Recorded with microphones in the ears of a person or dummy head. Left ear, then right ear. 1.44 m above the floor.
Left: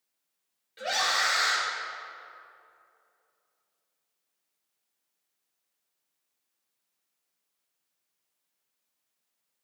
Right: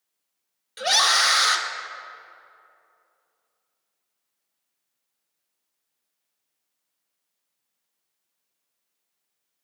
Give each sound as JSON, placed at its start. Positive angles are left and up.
{"t": 0.8, "sound": "a scream", "side_deg": -45, "distance_m": 0.7}